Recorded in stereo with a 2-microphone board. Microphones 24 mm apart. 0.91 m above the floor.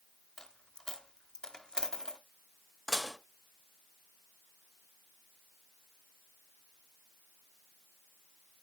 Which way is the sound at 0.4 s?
35° left (ahead or behind).